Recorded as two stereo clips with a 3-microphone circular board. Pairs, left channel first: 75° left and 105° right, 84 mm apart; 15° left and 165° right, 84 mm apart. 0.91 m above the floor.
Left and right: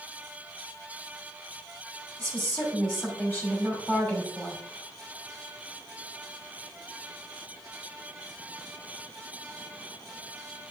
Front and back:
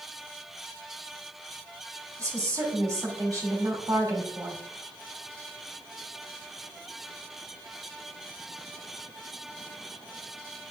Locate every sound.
2.2 s a woman speaking: 140° left, 2.5 m